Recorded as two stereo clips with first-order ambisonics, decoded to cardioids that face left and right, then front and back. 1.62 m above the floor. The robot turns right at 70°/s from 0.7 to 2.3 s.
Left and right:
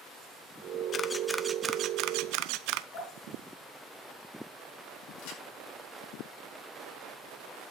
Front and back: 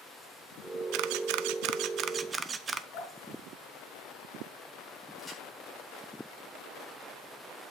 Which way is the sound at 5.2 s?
90° left.